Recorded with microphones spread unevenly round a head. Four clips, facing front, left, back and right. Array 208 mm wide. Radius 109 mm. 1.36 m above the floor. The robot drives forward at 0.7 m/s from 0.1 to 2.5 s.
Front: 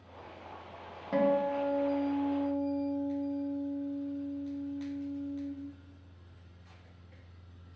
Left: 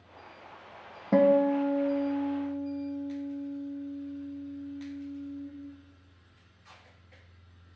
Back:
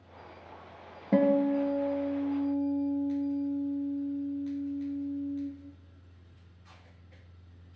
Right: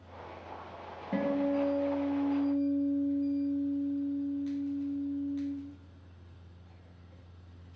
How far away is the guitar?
About 0.5 m.